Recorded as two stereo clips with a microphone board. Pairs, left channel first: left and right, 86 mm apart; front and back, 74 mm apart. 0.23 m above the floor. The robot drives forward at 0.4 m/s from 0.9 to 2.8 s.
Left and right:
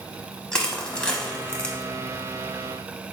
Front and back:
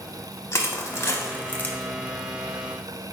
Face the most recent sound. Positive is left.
turn(degrees=150)